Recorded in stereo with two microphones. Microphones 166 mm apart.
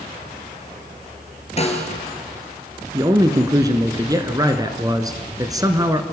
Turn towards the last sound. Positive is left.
turn(degrees=-25)  # may be behind; listen again after turning